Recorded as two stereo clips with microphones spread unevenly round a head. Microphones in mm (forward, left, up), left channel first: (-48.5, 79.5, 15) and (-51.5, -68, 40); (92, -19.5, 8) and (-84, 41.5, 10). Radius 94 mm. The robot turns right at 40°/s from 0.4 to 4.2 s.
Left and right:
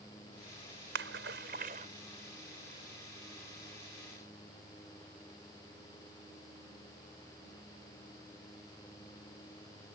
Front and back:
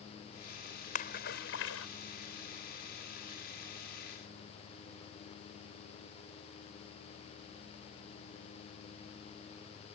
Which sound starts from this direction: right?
A splash, at 0.9 s.